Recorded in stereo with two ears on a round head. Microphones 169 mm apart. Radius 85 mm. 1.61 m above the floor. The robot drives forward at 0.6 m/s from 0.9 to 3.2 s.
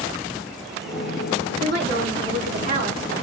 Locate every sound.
1.6 s a woman speaking: 55° right (ahead or behind), 4 m; by 3.0 s 45° right (ahead or behind), 4.5 m